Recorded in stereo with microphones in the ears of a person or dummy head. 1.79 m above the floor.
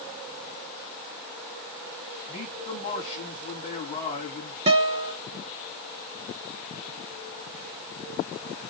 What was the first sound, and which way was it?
A man speaking, 30° left (ahead or behind).